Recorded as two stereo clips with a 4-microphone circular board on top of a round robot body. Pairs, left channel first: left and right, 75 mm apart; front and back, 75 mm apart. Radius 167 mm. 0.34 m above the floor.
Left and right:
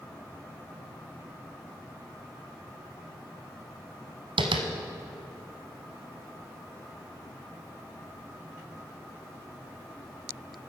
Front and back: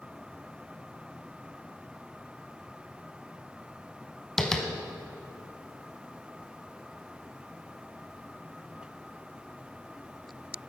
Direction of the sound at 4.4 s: 85° right.